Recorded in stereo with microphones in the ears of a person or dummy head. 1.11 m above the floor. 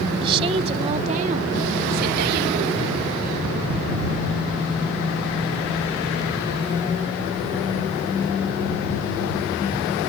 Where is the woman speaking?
25° right (ahead or behind); by 3.0 s 65° right (ahead or behind).